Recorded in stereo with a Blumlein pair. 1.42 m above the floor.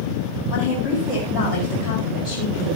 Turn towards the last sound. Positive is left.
turn(degrees=25)